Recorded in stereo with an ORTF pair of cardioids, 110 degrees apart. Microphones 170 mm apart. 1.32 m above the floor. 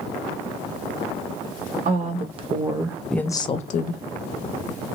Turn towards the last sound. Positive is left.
turn(degrees=75)